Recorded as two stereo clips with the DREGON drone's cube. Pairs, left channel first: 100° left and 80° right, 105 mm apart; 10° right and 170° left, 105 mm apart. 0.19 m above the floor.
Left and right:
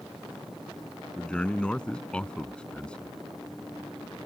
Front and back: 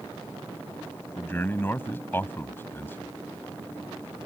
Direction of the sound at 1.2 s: 30° left.